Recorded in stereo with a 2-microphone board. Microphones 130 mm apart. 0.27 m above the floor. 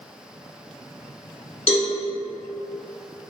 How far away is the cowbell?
About 0.6 m.